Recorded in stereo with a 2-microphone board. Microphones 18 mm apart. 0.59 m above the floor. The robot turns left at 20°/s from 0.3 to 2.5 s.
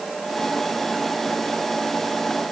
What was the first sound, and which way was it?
Only background noise.